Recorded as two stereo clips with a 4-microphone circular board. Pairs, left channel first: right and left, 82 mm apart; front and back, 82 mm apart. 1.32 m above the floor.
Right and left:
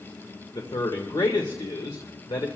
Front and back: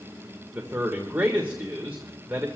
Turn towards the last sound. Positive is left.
turn(degrees=-115)